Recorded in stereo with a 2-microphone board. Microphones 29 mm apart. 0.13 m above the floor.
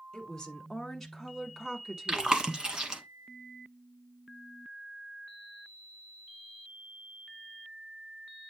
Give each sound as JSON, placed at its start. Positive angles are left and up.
{"t": 0.1, "sound": "a woman speaking", "side_deg": 20, "distance_m": 1.4}
{"t": 2.1, "sound": "chewing", "side_deg": -30, "distance_m": 1.3}